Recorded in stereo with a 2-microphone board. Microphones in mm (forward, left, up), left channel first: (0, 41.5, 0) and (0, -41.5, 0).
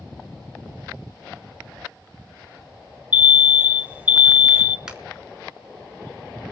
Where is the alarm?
15° right (ahead or behind), 0.8 m.